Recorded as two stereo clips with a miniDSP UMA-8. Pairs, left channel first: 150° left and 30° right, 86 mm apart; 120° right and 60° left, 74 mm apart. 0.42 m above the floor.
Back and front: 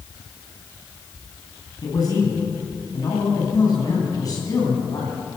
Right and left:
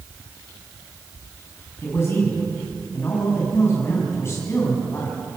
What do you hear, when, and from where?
1.8 s a man speaking: 170° right, 3 m